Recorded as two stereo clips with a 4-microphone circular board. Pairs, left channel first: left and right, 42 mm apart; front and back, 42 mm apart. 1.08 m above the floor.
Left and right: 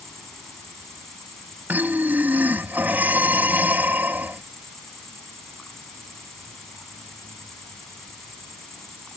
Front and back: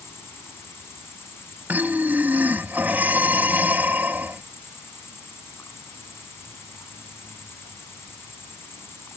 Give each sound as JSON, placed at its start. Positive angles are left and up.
{"t": 0.0, "sound": "an insect", "azimuth_deg": 10}
{"t": 1.7, "sound": "breathing", "azimuth_deg": -135}